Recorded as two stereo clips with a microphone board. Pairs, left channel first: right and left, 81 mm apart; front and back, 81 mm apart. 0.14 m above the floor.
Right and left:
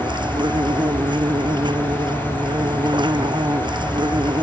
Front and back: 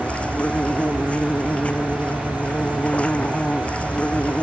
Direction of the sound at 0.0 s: 75° left.